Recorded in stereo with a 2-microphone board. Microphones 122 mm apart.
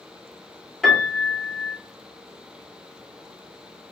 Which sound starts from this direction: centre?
A piano, at 0.8 s.